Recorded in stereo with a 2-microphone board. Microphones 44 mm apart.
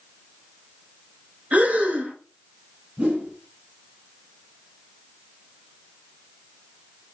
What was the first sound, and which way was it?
Breathing, 30° right (ahead or behind).